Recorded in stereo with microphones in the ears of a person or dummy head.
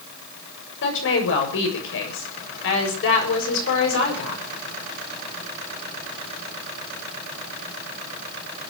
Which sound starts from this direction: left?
A woman speaking, at 0.8 s.